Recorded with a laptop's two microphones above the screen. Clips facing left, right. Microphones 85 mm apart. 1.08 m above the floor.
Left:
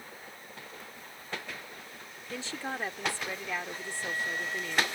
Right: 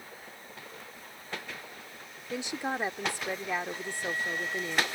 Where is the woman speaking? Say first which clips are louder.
Right 4 dB; 15° right (ahead or behind).